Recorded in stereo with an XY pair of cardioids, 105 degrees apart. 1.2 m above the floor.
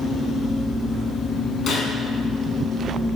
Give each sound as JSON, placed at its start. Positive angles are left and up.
{"t": 1.7, "sound": "a gunshot", "azimuth_deg": 60, "distance_m": 5.5}